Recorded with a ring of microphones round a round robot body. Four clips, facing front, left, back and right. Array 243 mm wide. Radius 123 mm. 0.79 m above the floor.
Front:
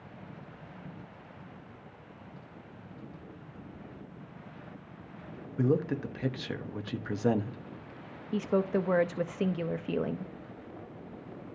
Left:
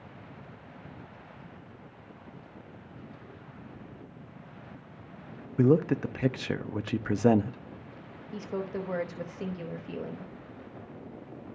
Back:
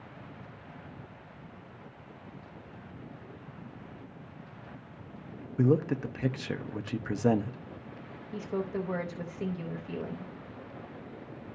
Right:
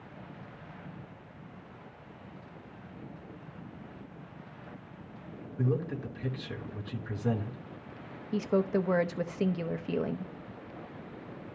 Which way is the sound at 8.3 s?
35° right.